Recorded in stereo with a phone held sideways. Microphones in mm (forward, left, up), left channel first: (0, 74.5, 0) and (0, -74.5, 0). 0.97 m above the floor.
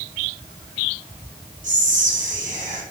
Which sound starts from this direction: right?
Whispering, at 1.6 s.